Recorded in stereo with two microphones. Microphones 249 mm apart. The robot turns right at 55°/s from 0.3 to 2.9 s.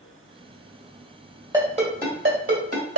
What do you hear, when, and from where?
1.5 s a ringtone: 15° right (ahead or behind), 1.9 m; by 3.0 s 85° right, 1.9 m